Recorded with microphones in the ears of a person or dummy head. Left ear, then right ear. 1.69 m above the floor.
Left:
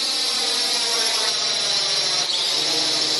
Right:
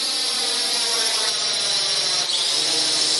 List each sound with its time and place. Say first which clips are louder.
0.0 s a drone: left 1 dB; centre (ahead or behind); by 3.2 s 10° right (ahead or behind)